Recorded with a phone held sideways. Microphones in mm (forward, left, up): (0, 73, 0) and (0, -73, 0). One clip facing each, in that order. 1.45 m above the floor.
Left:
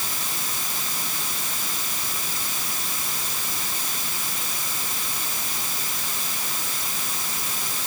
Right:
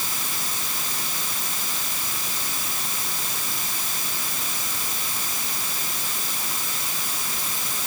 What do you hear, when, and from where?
Only background noise.